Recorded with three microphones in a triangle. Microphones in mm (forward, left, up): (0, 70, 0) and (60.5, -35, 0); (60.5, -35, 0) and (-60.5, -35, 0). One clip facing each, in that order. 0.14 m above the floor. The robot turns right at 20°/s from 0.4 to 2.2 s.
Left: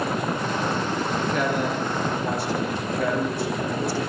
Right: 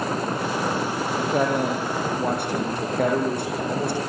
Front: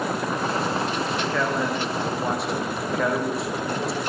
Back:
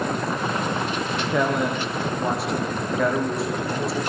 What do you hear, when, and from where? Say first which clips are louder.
1.2 s a man speaking: right 4 dB, back 4 dB; 110° right, 7 m; by 4.0 s 90° right, 7 m